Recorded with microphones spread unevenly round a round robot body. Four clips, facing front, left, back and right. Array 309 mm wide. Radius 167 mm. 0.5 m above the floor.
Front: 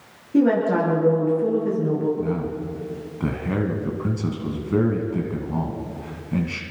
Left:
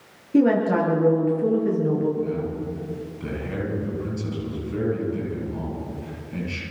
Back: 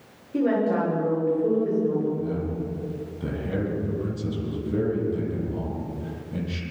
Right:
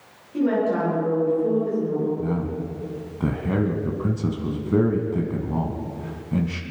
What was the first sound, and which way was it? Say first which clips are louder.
A woman speaking: left 3 dB, front 4 dB; 65° left.